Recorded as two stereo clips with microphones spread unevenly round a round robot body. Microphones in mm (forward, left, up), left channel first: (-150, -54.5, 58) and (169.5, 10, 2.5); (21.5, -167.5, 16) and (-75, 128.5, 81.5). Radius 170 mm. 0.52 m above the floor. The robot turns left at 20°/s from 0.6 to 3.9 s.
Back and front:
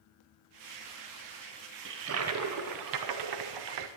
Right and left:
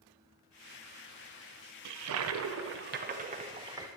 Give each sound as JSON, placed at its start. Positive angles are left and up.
{"t": 1.9, "sound": "a toilet flushing", "azimuth_deg": 70, "distance_m": 0.7}